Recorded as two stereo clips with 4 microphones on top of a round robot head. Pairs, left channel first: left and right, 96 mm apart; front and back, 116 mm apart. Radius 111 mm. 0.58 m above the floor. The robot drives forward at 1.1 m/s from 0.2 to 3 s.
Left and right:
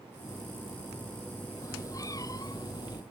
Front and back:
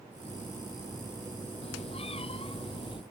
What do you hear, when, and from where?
1.6 s a cat meowing: 35° left; by 3.0 s 45° left